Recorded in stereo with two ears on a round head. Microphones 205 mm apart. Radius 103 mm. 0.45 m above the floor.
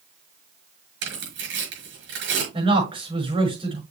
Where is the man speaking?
25° right (ahead or behind), 5.5 m.